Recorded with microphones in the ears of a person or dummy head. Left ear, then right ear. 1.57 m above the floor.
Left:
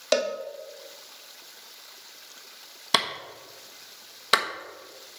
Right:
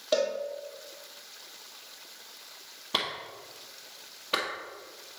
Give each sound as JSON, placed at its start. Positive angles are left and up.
{"t": 0.1, "sound": "a cowbell", "side_deg": 55, "distance_m": 1.2}
{"t": 2.9, "sound": "a clap", "side_deg": 60, "distance_m": 1.3}